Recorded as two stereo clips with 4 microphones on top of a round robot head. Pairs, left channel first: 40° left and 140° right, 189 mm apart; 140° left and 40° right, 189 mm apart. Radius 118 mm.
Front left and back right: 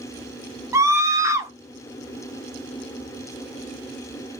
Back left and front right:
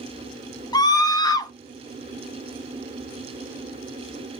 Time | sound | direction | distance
0.7 | a scream | 170° left | 0.8 m